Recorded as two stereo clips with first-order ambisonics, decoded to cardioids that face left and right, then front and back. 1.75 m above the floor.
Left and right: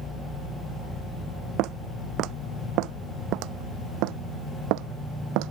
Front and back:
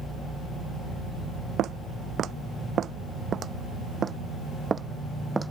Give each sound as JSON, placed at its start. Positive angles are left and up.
{"t": 1.6, "sound": "footsteps", "azimuth_deg": -125}